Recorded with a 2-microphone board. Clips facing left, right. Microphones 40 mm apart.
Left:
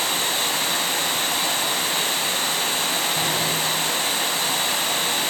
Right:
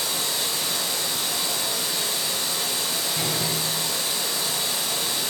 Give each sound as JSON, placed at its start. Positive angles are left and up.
{"t": 0.0, "sound": "running water", "side_deg": 45, "distance_m": 1.4}
{"t": 3.1, "sound": "a door slam", "side_deg": 30, "distance_m": 4.5}